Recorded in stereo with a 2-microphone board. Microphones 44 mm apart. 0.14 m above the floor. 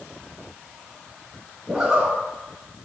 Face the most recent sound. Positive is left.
turn(degrees=-10)  # may be behind; listen again after turning